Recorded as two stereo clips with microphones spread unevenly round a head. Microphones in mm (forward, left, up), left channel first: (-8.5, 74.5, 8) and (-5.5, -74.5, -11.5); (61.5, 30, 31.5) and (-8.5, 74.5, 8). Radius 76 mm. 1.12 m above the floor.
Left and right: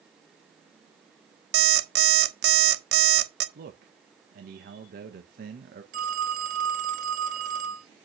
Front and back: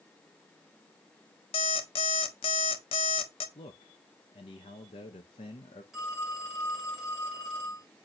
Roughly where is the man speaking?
Right.